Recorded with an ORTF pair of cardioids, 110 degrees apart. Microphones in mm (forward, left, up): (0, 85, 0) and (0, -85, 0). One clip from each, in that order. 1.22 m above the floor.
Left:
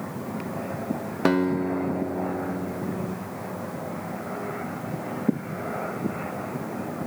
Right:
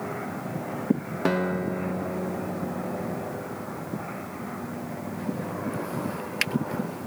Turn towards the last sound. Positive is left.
turn(degrees=20)